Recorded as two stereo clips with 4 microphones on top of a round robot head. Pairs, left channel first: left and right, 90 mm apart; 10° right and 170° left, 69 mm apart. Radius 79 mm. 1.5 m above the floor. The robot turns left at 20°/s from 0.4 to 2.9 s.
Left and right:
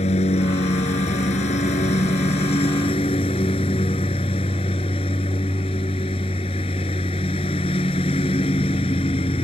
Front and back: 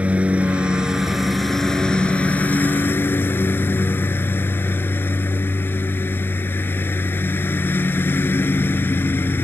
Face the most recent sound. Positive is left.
turn(degrees=50)